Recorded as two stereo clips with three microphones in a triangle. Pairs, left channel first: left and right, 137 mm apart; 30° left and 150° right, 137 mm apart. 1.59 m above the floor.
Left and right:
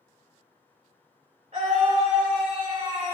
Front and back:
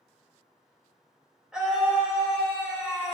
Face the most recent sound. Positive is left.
turn(degrees=-65)